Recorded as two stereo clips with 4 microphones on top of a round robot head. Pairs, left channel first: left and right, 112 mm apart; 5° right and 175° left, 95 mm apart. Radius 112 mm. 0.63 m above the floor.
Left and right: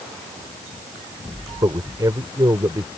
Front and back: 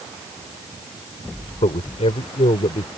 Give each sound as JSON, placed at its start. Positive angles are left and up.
{"t": 1.6, "sound": "a man speaking", "azimuth_deg": -25}